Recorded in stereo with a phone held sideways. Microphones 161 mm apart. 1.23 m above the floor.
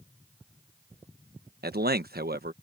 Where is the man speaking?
65° right (ahead or behind).